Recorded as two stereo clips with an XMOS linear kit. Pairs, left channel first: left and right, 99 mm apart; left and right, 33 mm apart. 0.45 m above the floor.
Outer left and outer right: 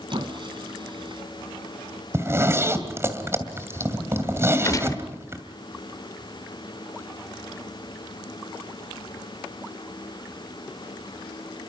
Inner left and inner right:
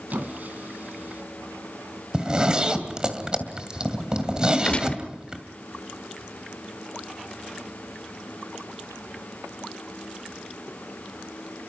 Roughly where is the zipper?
Right.